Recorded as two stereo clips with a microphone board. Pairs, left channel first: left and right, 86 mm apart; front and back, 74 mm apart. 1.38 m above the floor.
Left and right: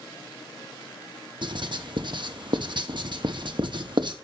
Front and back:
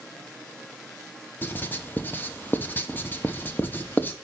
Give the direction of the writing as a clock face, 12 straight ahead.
2 o'clock.